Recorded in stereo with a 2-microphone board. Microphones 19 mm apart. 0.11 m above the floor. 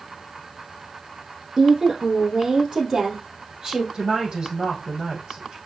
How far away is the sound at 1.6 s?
About 4 m.